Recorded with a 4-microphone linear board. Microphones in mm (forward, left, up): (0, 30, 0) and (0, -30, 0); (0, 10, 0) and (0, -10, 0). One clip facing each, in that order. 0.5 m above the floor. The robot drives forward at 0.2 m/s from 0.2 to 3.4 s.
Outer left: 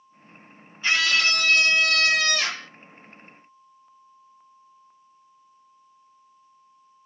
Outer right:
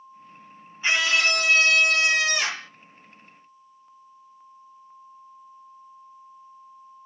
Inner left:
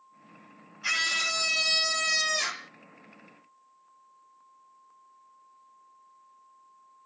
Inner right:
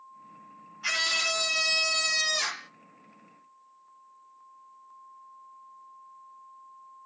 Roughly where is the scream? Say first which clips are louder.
Even, even; centre.